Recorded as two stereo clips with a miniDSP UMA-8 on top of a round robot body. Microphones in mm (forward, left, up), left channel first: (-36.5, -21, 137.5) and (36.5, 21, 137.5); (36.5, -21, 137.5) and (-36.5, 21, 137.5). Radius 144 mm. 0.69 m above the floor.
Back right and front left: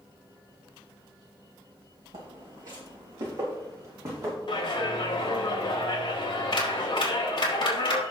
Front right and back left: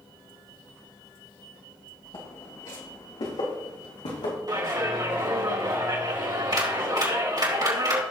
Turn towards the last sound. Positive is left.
turn(degrees=-175)